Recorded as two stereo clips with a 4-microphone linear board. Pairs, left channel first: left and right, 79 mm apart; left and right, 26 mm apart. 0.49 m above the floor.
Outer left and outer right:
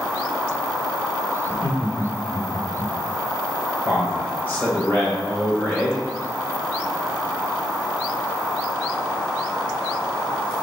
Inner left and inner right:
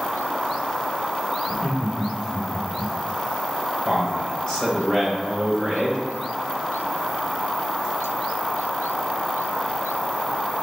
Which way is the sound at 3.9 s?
20° left (ahead or behind).